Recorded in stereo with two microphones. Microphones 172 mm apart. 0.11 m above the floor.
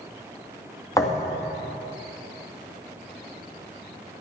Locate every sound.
0.9 s a thud: 20° left (ahead or behind), 2 m